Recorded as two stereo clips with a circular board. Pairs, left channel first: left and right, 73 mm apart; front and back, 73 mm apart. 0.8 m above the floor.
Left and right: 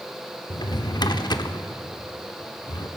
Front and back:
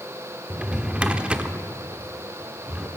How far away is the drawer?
About 0.9 m.